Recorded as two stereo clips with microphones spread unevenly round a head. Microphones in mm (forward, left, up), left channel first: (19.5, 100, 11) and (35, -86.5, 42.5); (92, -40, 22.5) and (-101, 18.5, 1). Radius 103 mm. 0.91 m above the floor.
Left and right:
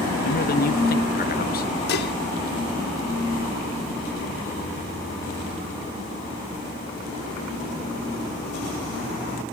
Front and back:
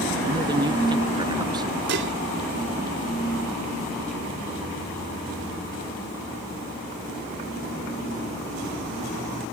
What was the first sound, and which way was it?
A man speaking, 100° left.